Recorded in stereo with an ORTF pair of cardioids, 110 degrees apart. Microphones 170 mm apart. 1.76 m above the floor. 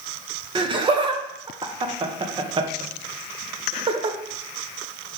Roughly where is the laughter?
Ahead right.